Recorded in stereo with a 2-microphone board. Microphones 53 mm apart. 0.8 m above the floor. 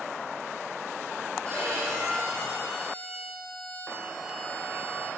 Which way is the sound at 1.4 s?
70° right (ahead or behind).